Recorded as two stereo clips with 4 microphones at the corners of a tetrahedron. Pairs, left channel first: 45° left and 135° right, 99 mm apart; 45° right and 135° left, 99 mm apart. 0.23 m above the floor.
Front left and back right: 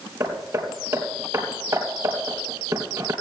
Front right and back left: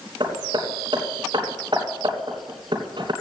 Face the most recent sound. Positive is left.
turn(degrees=170)